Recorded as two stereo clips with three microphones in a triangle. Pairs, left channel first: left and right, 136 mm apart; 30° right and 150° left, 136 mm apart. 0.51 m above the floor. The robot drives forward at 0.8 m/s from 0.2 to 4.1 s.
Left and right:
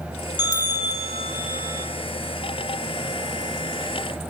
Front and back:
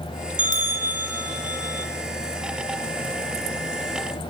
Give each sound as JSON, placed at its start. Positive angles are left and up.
{"t": 0.4, "sound": "a bell", "azimuth_deg": 145, "distance_m": 1.3}